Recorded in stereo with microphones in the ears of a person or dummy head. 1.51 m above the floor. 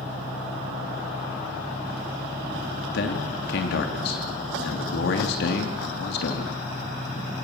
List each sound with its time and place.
0.0 s an engine running: centre (ahead or behind), 1.6 m
2.9 s a man speaking: 60° left (ahead or behind), 3 m